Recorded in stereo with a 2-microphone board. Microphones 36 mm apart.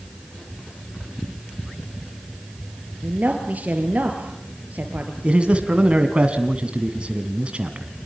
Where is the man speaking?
35° right (ahead or behind), 2 m.